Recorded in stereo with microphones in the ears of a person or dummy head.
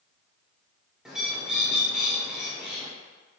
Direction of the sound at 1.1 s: 5° right (ahead or behind).